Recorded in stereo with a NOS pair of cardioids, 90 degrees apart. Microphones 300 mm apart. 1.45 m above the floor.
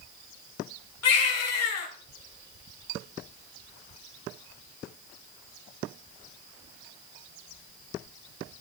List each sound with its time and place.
1.0 s a baby crying: 55° left, 3.5 m